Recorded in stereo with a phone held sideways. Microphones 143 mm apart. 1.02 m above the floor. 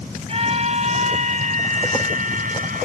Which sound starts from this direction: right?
A scream, at 0.3 s.